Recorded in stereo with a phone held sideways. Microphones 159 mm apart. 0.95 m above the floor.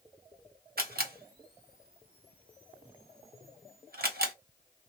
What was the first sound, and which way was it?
A camera shutter, 70° right (ahead or behind).